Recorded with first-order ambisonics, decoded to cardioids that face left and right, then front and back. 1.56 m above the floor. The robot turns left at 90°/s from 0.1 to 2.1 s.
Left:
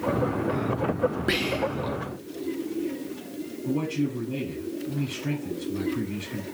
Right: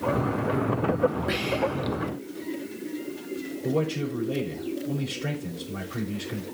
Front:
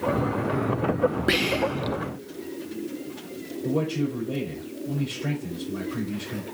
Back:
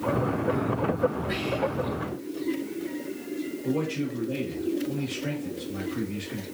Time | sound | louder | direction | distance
1.3 | whispering | left 1 dB, front 5 dB | 20° left | 0.5 m
3.6 | a man speaking | right 1 dB, front 4 dB | 65° right | 3.5 m